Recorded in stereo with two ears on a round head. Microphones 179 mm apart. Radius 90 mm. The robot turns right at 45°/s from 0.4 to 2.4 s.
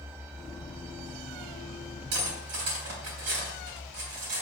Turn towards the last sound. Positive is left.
turn(degrees=-80)